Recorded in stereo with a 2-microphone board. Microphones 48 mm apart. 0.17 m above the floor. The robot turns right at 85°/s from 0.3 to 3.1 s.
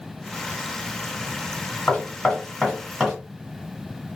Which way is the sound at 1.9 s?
25° left (ahead or behind).